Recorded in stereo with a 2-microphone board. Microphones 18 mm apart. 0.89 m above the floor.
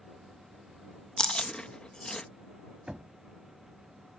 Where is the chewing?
55° left (ahead or behind).